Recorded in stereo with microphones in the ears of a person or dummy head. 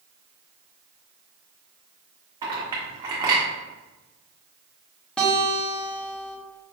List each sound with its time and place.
2.4 s a clink: 25° right (ahead or behind), 1.0 m
5.2 s a guitar: centre (ahead or behind), 0.8 m